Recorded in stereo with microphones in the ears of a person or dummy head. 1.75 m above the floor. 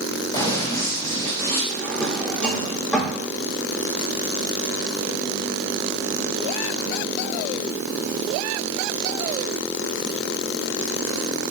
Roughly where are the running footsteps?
Left.